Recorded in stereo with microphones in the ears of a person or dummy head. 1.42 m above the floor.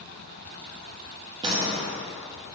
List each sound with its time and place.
1.4 s a door slam: 25° right (ahead or behind), 0.6 m